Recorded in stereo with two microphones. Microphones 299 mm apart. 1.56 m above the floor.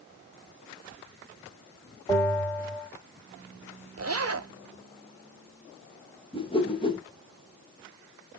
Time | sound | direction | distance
2.1 | a bell | 10° left (ahead or behind) | 2.5 m
4.0 | a zipper | 55° right (ahead or behind) | 0.5 m
6.3 | a whoosh | 15° left (ahead or behind) | 1.2 m